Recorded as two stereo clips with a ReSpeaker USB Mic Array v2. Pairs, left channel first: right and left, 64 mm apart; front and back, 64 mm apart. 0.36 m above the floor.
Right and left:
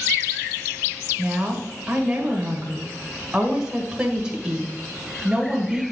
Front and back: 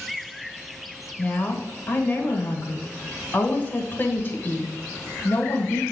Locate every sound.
1.2 s a woman speaking: 20° left, 1.4 m